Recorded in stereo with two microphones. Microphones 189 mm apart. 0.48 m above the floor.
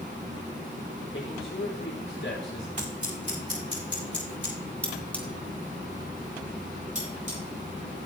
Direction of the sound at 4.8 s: 5° left (ahead or behind).